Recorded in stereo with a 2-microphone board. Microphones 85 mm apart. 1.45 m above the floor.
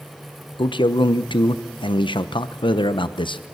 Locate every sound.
0.6 s a man speaking: 65° left (ahead or behind), 1.0 m